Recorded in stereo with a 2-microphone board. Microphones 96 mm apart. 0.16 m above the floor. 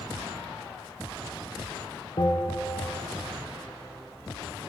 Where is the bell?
60° left (ahead or behind), 1.8 m.